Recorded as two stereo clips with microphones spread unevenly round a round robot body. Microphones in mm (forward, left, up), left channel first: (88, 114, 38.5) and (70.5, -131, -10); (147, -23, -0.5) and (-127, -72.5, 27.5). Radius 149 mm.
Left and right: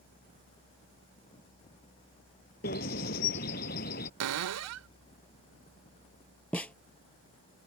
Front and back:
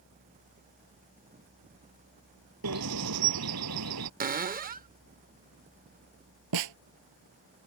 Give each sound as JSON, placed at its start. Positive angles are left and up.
{"t": 2.6, "sound": "a bird", "azimuth_deg": 145}
{"t": 4.2, "sound": "a cupboard door", "azimuth_deg": -105}
{"t": 6.5, "sound": "a snare drum", "azimuth_deg": 170}